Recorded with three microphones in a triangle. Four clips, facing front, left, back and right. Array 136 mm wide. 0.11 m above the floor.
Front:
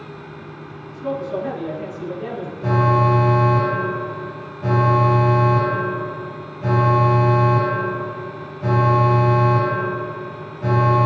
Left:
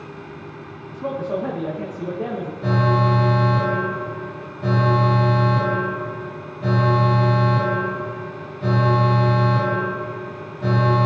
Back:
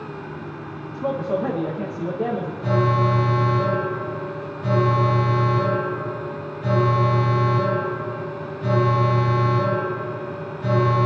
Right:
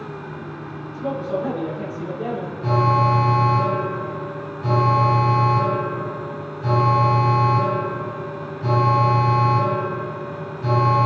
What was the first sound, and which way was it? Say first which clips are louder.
A man speaking: even, back 1 dB; 155° left.